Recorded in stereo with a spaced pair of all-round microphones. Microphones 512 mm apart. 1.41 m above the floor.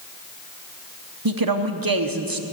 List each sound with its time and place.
1.2 s a woman speaking: 40° right (ahead or behind), 0.8 m